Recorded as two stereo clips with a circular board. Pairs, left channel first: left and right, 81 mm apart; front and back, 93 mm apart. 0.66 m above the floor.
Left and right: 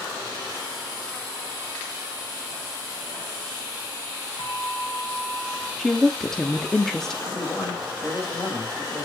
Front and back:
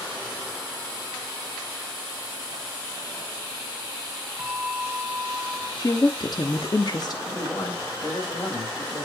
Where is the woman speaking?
10° left, 1.1 m.